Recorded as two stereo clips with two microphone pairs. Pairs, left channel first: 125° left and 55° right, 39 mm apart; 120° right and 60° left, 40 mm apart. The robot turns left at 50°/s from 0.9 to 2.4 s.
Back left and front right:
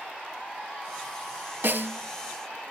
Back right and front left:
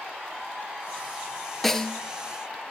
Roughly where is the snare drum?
Ahead right.